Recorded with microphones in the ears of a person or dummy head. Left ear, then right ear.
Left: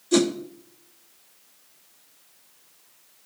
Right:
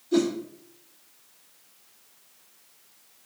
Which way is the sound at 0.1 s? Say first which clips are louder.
Left 3 dB; 60° left (ahead or behind).